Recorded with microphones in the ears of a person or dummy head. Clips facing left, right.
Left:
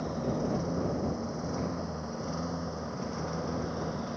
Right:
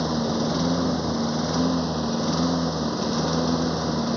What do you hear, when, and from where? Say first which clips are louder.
0.0 s a lawn mower: right 8 dB; 85° right; by 4.2 s 70° right (ahead or behind)